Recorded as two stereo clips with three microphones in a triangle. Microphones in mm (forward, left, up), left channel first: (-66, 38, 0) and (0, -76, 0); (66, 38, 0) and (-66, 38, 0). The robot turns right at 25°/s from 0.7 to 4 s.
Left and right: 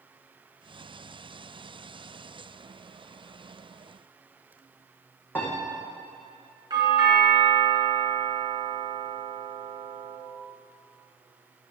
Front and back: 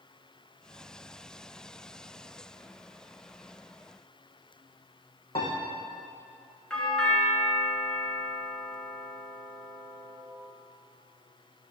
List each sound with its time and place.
5.3 s a piano: 45° left, 4.5 m
6.7 s a doorbell: 80° right, 2 m